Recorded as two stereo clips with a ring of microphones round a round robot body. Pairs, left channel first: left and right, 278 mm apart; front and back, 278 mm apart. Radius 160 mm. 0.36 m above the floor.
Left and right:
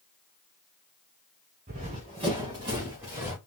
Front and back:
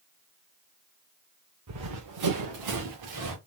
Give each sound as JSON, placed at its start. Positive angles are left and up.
{"t": 1.7, "sound": "running footsteps", "azimuth_deg": -155, "distance_m": 1.7}